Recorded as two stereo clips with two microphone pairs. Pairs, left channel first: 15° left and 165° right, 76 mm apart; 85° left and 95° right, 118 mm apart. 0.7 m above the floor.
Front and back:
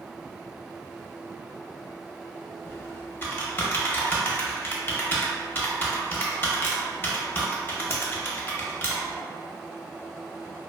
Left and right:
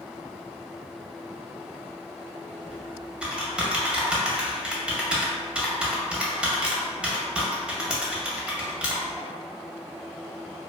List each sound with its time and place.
2.6 s typing on a keyboard: 15° right, 0.5 m